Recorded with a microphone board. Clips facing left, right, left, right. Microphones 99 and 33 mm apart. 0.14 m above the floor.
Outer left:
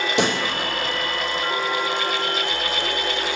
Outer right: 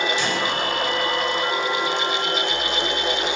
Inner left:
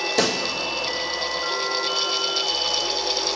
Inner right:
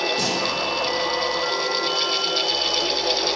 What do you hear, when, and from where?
0.2 s a pop: 70° left (ahead or behind), 1.4 m